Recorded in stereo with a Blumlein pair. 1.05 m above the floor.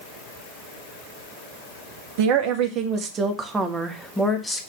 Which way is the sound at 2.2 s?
45° right.